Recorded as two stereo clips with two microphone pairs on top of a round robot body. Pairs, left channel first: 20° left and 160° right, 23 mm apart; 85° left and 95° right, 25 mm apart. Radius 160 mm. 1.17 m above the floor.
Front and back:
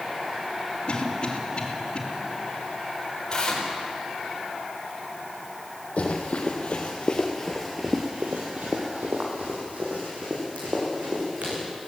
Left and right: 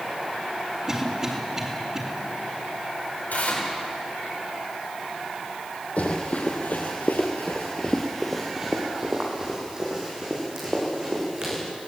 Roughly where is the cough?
Ahead.